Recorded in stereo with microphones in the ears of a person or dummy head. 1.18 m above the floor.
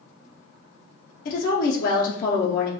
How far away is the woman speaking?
About 0.6 m.